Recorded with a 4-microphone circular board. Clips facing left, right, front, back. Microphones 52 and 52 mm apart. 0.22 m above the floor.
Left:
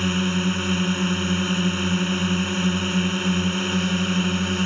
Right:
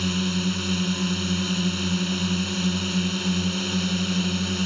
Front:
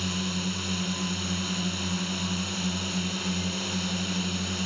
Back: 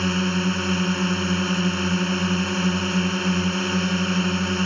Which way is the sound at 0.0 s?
145° left.